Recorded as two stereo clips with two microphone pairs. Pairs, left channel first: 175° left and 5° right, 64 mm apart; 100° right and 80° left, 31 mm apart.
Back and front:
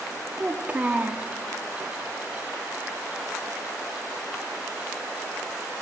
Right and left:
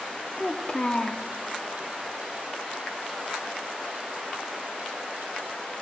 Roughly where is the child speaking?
Ahead right.